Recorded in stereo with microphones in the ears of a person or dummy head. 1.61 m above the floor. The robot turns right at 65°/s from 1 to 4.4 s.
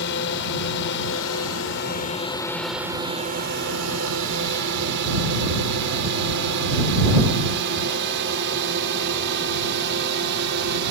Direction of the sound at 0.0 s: 65° left (ahead or behind).